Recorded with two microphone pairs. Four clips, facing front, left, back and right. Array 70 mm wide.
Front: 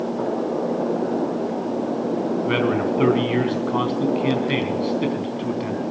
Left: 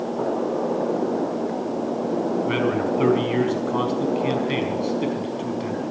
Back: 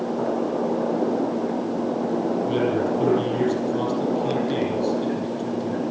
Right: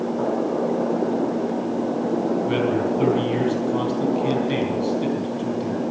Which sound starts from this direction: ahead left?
A man speaking, at 2.5 s.